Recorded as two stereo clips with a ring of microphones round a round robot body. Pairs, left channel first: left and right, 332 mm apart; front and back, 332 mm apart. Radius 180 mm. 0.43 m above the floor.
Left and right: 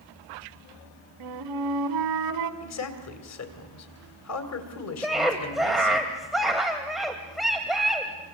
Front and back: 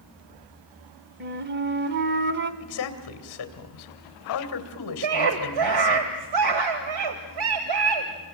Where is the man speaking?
45° left, 2.5 m.